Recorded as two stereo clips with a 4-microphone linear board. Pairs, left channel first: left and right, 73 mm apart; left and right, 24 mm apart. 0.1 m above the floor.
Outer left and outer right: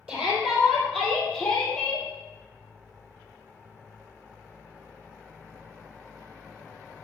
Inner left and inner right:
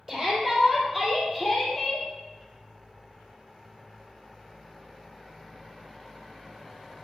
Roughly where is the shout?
Centre.